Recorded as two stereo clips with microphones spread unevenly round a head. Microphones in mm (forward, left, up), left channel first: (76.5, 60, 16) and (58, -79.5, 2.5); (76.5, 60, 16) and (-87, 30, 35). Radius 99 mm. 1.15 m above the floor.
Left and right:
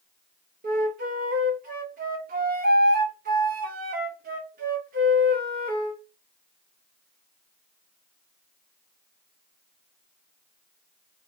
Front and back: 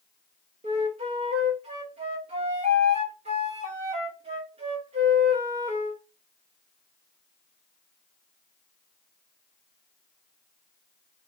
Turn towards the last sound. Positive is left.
turn(degrees=-120)